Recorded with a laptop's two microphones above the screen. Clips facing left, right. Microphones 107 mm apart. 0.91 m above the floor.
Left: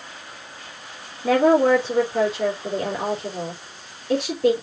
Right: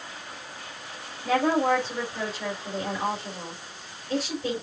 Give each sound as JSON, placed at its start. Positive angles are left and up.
{"t": 1.2, "sound": "a woman speaking", "side_deg": 70, "distance_m": 3.0}